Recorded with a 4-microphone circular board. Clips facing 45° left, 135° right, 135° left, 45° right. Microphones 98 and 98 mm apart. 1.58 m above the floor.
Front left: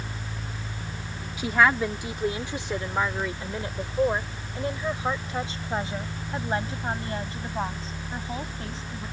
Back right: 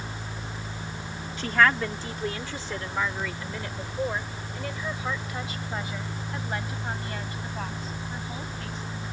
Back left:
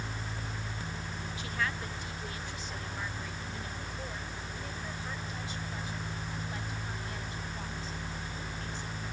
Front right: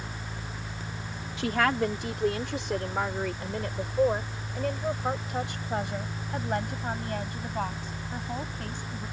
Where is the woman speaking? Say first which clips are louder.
Front left 1 dB, front right 12 dB; 35° right; by 9.0 s 15° right.